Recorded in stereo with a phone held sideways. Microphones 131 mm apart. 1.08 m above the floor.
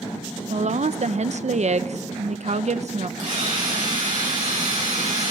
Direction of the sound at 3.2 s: 70° right (ahead or behind).